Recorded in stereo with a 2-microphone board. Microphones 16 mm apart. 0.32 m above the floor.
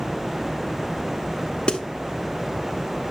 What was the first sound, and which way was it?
A snare drum, 60° left (ahead or behind).